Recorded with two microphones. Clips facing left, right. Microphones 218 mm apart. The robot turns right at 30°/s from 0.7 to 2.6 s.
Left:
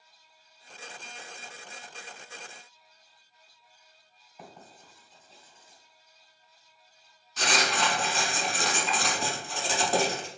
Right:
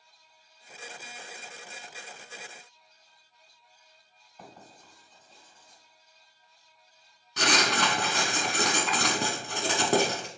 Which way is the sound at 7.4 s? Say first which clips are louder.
Right 2 dB; 65° right (ahead or behind).